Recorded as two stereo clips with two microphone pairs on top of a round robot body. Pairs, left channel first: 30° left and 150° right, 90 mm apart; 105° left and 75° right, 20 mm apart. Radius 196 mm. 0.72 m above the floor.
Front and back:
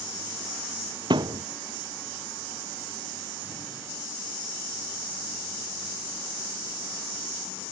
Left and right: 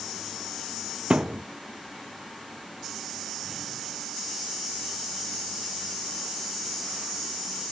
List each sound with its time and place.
1.1 s a thud: 110° right